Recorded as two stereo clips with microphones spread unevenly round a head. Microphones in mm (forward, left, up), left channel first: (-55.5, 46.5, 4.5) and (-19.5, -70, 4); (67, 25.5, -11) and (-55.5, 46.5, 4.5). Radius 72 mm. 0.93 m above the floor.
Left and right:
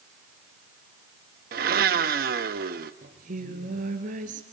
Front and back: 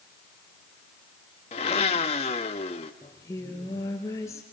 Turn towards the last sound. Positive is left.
turn(degrees=-85)